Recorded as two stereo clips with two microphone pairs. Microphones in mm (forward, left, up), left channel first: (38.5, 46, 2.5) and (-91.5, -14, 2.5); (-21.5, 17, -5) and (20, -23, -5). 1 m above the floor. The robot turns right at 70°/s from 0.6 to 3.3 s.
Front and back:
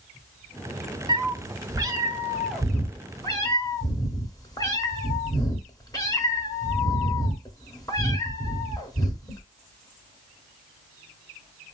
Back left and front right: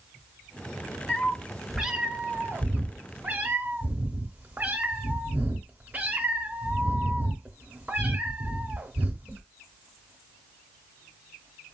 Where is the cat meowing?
170° right, 0.7 m; by 9.4 s 15° right, 0.7 m.